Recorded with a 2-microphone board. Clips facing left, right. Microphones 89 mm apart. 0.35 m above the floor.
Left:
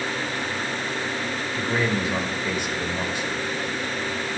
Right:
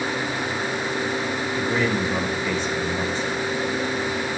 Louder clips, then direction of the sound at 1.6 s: Right 1 dB; 15° left (ahead or behind).